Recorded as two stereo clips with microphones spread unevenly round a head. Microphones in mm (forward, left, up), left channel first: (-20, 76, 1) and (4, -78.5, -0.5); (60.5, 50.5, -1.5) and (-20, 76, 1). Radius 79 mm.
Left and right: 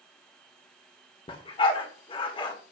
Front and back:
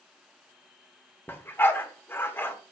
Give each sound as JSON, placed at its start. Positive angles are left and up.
{"t": 1.3, "sound": "a dog barking", "azimuth_deg": 45, "distance_m": 1.7}